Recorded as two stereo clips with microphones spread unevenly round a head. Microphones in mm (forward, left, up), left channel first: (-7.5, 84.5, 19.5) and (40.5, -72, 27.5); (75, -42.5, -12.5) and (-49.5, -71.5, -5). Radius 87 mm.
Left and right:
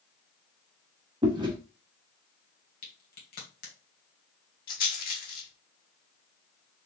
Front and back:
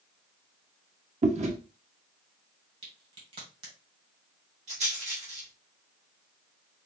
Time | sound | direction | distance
1.2 | chewing | 135° right | 1.0 m
2.8 | a crack | 145° left | 1.8 m
4.7 | a rattle | 140° left | 1.6 m